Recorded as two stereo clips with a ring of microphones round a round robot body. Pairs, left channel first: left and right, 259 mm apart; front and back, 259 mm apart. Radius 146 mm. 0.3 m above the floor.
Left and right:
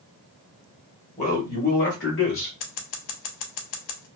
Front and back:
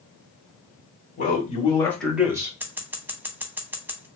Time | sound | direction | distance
1.2 | a man speaking | 35° left | 1.4 m
2.6 | scissors | 95° left | 0.6 m